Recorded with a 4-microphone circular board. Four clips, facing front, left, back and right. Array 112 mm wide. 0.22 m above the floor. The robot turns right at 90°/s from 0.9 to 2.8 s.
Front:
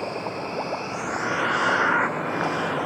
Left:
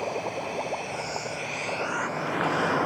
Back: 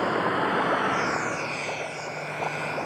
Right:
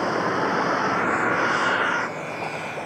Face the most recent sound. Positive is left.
turn(degrees=65)